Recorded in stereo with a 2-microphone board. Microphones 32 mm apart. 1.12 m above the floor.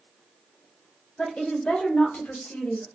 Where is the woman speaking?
30° left (ahead or behind), 1.2 m; by 2.9 s 65° left (ahead or behind), 1.5 m.